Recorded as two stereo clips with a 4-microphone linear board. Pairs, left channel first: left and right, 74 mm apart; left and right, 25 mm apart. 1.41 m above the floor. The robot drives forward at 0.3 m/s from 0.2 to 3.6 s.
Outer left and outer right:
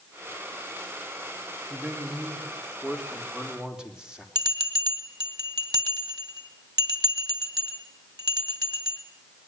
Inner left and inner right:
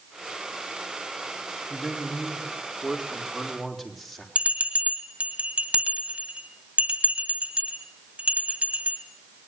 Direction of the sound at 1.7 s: 10° right (ahead or behind).